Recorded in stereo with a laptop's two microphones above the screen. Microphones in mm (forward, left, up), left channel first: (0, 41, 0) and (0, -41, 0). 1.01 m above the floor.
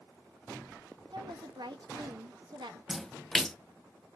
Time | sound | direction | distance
1.1 | a woman speaking | 75° right (ahead or behind) | 1.2 m
2.9 | a splash | 5° left (ahead or behind) | 0.7 m